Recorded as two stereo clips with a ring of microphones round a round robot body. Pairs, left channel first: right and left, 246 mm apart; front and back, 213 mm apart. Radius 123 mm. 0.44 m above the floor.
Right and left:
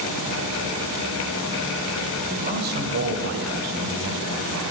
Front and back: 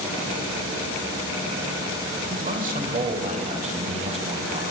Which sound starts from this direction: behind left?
A man speaking, at 2.3 s.